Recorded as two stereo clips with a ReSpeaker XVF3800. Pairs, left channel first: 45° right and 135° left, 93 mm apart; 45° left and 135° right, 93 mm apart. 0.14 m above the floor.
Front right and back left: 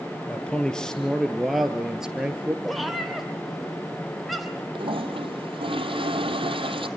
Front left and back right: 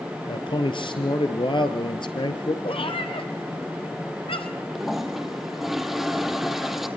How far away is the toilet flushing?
About 1.5 m.